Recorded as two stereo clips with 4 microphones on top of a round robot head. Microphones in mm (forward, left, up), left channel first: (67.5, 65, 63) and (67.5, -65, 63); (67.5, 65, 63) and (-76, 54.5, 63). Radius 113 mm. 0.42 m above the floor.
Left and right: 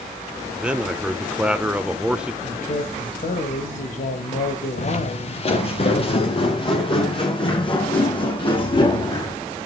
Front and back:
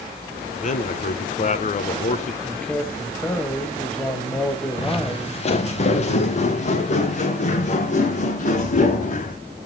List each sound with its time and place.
0.6 s a man speaking: 10° right, 1.1 m
2.4 s a man speaking: 85° left, 2 m
4.8 s footsteps: 55° left, 2 m; by 9.3 s 40° left, 7.5 m